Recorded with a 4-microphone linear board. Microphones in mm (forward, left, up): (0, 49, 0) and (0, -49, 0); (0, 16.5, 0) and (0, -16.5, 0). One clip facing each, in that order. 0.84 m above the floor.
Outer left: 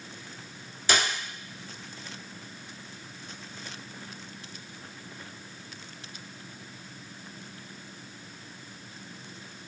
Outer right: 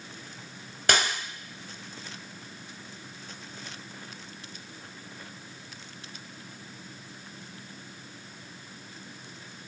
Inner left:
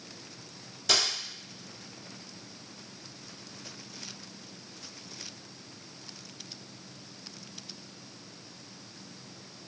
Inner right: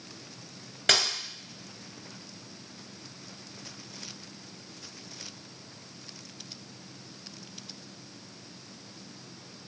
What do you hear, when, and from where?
0.9 s a dropped coin: 60° right (ahead or behind), 1.5 m